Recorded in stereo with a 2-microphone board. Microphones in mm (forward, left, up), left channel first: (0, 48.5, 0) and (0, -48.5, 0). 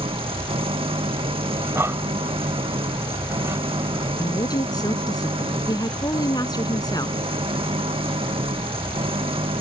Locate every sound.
0.0 s an engine running: 80° right
1.6 s breathing: 30° right (ahead or behind)
4.2 s a woman speaking: 45° left (ahead or behind)